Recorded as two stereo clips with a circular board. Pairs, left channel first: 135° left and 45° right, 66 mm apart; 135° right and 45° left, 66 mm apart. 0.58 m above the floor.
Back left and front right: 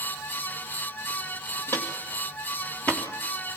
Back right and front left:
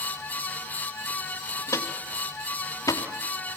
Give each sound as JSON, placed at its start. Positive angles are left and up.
{"t": 1.7, "sound": "footsteps", "azimuth_deg": -170, "distance_m": 3.5}